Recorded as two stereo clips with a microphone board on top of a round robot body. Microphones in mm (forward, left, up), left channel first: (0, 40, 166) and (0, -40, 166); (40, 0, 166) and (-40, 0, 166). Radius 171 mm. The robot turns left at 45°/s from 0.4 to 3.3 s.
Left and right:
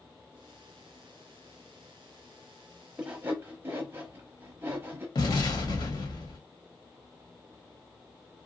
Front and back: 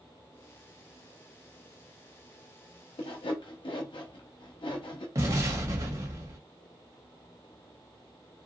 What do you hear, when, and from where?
3.0 s sawing: 10° right, 0.8 m; by 5.0 s 25° right, 0.8 m
5.2 s an explosion: 130° left, 1.3 m